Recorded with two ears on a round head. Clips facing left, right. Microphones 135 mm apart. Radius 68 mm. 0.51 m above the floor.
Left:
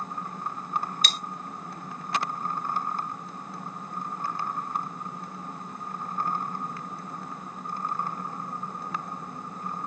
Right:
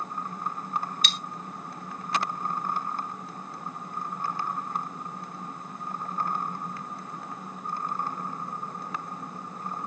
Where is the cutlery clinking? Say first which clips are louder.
Left 1 dB; 35° left (ahead or behind), 0.5 m.